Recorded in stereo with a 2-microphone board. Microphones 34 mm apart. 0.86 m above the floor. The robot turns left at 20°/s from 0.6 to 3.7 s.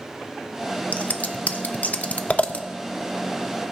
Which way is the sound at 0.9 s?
45° left (ahead or behind).